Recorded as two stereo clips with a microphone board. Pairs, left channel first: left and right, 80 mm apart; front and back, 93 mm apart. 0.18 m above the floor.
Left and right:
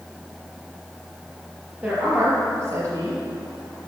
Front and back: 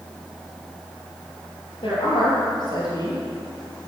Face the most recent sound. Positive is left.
turn(degrees=-60)